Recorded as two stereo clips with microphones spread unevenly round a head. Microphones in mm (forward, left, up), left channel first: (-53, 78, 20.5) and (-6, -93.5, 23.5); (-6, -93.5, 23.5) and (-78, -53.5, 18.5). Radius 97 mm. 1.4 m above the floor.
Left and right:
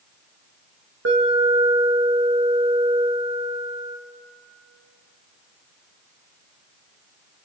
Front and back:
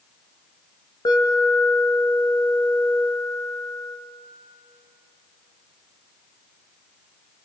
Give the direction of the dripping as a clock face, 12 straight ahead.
I don't hear dripping.